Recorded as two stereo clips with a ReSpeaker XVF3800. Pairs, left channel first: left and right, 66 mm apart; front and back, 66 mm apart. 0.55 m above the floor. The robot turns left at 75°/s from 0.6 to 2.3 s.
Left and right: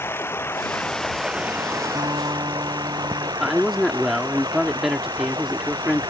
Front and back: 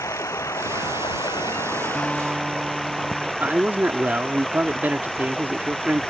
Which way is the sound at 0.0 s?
40° left.